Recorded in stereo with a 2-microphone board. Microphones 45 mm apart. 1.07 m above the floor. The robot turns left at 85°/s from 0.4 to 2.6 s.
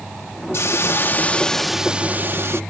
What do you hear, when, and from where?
0.5 s a hiss: 95° left; by 2.6 s 80° right